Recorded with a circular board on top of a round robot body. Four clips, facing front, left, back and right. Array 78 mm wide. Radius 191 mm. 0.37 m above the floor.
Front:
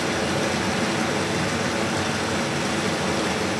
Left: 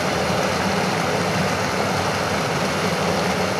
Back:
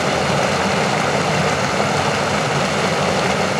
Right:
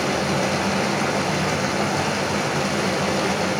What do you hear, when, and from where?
0.0 s running water: 170° left, 2 m